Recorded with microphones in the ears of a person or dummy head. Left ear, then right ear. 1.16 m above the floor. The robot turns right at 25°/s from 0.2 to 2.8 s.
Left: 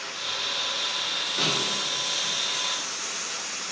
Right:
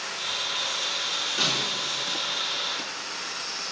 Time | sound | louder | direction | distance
1.4 | a snare drum | even | 15° right (ahead or behind) | 2.5 m